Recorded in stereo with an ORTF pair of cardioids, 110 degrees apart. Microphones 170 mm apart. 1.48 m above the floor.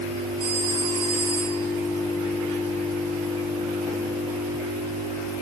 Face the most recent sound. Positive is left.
turn(degrees=-30)